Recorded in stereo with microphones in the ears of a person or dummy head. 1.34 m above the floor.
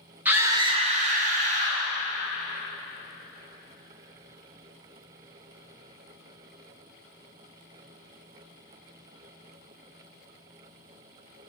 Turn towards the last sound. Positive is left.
turn(degrees=-40)  # may be behind; listen again after turning